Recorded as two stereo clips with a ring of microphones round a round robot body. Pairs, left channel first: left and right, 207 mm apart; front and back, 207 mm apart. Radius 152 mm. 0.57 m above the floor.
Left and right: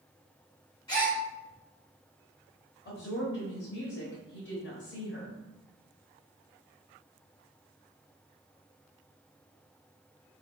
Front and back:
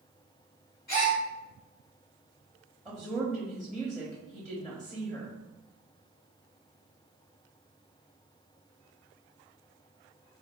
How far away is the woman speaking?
About 1.0 m.